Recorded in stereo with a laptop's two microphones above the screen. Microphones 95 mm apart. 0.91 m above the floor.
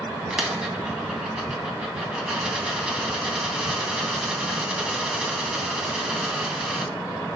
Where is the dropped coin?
10° right (ahead or behind), 2 m.